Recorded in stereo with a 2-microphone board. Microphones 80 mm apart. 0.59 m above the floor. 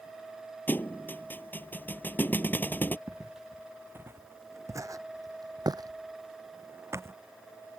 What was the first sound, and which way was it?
A thud, 25° left (ahead or behind).